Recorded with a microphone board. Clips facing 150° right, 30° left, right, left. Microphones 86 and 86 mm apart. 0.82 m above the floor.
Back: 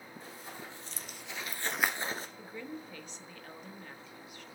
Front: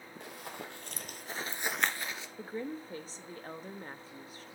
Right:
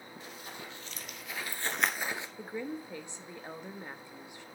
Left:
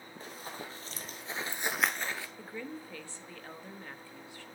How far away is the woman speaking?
About 0.8 m.